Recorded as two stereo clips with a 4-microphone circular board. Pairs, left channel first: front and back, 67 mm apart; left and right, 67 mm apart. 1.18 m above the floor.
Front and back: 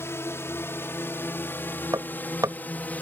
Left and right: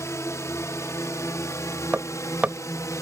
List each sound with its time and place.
0.0 s a drone: 50° left; by 3.0 s 65° left
1.9 s hammering: 155° right